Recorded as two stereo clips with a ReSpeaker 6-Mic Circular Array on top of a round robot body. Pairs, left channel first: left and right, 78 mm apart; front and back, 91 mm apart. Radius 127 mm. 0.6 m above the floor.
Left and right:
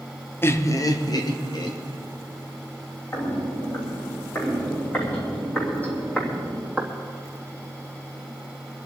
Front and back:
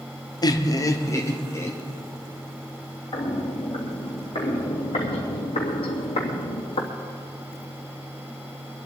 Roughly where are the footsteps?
Ahead left.